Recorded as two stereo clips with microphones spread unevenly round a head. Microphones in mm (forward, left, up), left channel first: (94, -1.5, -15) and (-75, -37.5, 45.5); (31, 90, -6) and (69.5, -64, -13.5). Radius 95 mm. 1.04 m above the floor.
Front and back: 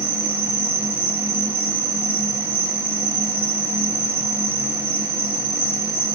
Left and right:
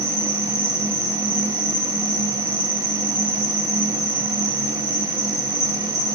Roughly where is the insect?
Right.